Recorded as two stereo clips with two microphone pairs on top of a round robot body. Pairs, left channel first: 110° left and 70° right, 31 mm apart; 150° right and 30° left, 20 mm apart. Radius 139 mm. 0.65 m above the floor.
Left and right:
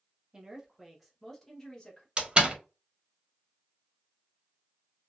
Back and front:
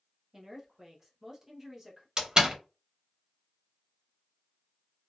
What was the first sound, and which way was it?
A woman speaking, 30° right.